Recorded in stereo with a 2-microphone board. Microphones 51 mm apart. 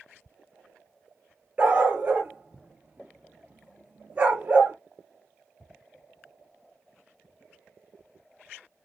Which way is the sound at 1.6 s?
30° right (ahead or behind).